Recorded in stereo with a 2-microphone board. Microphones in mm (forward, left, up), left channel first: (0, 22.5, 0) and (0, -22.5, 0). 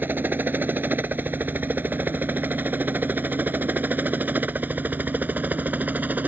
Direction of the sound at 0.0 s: 45° right (ahead or behind).